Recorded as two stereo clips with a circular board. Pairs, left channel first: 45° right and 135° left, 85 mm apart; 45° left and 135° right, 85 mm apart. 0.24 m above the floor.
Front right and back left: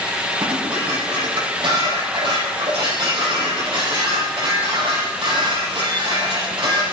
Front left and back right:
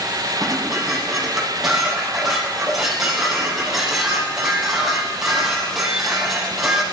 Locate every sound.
0.4 s dishes clattering: 140° left, 5.5 m